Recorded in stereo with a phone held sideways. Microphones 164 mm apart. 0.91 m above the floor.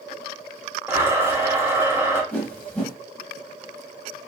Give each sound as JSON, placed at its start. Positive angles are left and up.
{"t": 0.9, "sound": "a blender", "side_deg": -15, "distance_m": 0.7}
{"t": 2.3, "sound": "a whoosh", "side_deg": 10, "distance_m": 0.9}